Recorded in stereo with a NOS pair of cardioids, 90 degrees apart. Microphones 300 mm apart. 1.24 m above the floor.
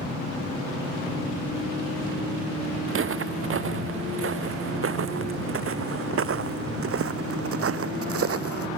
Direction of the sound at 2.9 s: 45° right.